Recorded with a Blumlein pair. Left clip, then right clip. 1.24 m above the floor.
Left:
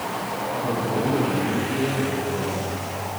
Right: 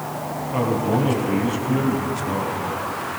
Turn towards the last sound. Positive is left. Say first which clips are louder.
# right 5 dB
turn(degrees=-65)